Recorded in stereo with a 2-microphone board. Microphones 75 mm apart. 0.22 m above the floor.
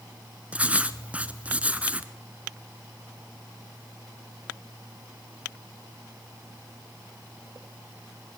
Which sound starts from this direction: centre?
Writing, at 0.5 s.